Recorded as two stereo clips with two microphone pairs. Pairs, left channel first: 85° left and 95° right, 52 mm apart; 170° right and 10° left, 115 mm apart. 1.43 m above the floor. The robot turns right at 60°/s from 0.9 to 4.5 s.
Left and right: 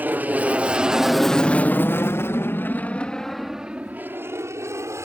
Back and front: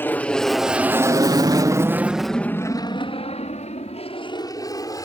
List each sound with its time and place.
0.0 s an aircraft: 110° right